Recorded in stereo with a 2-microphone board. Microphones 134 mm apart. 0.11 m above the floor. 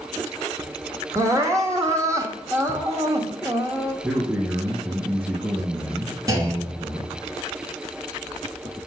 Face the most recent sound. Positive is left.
turn(degrees=-25)  # may be behind; listen again after turning